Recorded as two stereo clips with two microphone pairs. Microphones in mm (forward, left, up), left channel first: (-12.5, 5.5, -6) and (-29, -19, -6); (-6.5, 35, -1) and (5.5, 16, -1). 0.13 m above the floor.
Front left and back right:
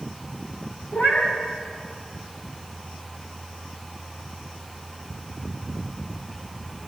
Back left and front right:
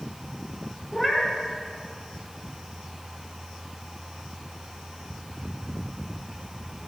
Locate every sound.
0.9 s a cat meowing: 40° left, 8.5 m